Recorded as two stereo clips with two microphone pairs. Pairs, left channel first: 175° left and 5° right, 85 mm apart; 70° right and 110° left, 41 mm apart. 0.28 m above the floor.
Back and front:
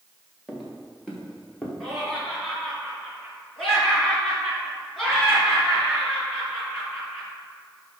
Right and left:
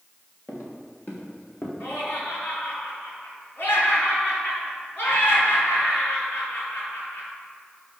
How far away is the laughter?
About 3.5 m.